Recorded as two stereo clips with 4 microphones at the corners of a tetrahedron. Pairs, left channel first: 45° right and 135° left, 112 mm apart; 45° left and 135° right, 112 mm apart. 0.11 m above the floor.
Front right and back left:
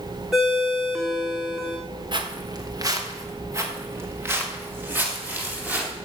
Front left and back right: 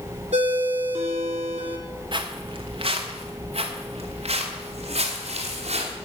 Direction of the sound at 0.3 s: 140° right.